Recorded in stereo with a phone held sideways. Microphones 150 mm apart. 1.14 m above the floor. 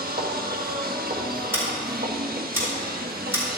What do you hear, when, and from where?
0.0 s a machine running: 75° right (ahead or behind), 1.2 m
1.5 s scissors: 15° right (ahead or behind), 4 m